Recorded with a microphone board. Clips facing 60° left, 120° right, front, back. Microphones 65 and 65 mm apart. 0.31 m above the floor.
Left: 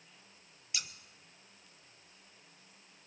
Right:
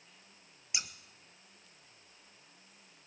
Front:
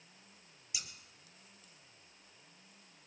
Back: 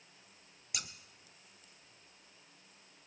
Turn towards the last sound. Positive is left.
turn(degrees=175)